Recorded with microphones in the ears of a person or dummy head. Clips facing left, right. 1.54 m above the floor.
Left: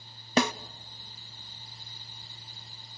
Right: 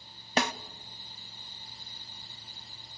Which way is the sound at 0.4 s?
75° left (ahead or behind).